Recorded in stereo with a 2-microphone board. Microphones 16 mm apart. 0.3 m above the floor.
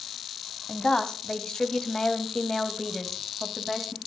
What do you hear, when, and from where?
0.7 s a woman speaking: 55° left (ahead or behind), 2.5 m; by 4.0 s 5° left (ahead or behind), 2.5 m